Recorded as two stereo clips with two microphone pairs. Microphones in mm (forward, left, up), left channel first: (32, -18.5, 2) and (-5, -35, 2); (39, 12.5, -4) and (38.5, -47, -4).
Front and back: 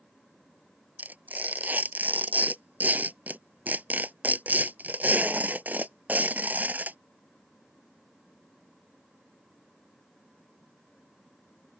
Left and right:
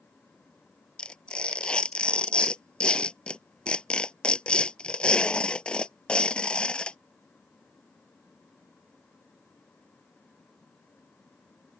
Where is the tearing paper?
160° left.